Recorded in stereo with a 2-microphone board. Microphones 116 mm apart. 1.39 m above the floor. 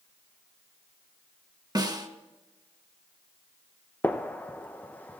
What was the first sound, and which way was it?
A snare drum, 35° right (ahead or behind).